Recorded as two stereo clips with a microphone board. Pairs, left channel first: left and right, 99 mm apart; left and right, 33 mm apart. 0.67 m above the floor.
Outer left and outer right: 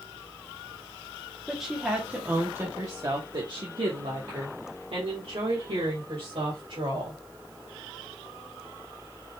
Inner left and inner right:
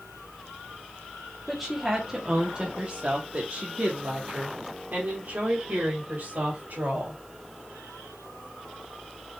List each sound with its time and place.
1.5 s a woman speaking: centre (ahead or behind), 1.2 m; by 7.2 s 60° right (ahead or behind), 2.5 m